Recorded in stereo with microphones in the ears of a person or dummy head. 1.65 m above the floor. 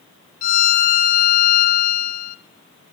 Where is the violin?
45° left (ahead or behind), 1.1 m.